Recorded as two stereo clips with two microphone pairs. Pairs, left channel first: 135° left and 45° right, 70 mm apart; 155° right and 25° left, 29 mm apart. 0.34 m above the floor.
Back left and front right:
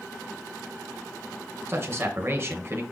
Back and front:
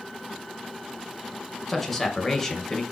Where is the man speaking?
70° right, 1.9 m.